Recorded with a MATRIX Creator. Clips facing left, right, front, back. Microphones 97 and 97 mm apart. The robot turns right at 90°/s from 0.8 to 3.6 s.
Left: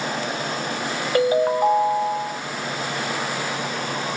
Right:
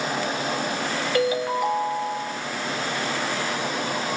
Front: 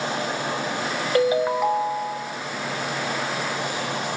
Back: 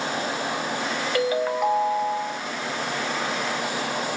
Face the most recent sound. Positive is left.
turn(degrees=-95)